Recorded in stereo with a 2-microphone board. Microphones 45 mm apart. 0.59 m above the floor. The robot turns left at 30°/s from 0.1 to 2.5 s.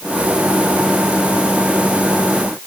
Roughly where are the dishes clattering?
No dishes clattering in this recording.